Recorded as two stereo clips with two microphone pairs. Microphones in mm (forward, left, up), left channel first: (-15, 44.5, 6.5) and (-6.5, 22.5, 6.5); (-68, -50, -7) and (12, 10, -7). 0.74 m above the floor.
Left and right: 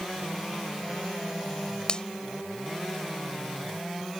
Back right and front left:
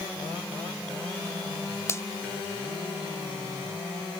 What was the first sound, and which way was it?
A finger snap, 155° left.